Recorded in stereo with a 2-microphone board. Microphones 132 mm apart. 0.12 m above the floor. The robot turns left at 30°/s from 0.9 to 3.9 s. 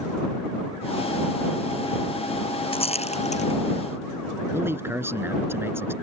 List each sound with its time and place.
2.7 s a rattle: 45° left (ahead or behind); by 3.5 s 65° left (ahead or behind)
4.5 s a man speaking: 20° right (ahead or behind)